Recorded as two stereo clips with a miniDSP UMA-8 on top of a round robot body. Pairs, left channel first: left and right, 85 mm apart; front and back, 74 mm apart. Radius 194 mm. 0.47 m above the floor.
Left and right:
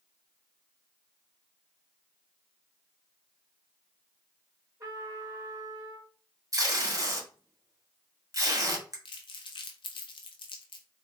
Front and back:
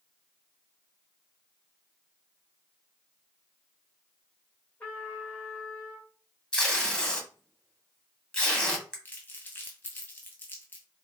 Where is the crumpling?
65° left, 0.5 m.